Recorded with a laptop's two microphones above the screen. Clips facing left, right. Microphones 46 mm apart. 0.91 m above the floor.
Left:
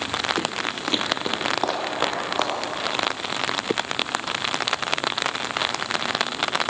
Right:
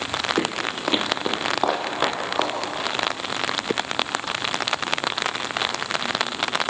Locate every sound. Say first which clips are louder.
0.4 s footsteps: right 2 dB; 25° right (ahead or behind), 1.0 m; by 2.5 s 5° right (ahead or behind), 3.5 m